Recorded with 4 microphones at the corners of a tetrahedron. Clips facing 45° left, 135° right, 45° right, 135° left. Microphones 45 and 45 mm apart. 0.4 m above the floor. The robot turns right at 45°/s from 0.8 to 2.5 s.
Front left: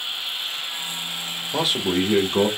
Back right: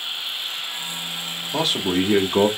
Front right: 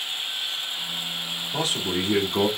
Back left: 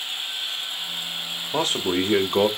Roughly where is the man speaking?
Behind left.